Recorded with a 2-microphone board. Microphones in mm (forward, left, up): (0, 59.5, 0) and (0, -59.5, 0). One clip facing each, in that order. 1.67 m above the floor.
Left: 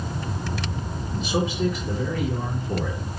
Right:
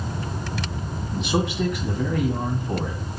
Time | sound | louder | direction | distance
1.1 | a man speaking | right 1 dB | 80° right | 3 m